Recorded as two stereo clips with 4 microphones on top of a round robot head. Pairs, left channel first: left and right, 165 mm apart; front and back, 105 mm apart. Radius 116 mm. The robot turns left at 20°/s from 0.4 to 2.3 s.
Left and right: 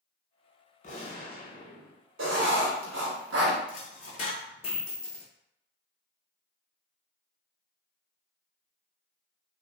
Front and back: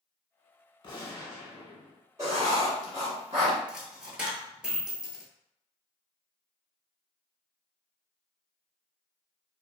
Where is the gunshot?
45° left, 0.8 m; by 2.0 s 20° left, 0.8 m.